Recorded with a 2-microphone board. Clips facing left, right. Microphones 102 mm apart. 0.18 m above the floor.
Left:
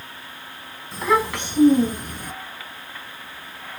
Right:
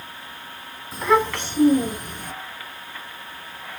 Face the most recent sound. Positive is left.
turn(degrees=45)  # may be behind; listen again after turning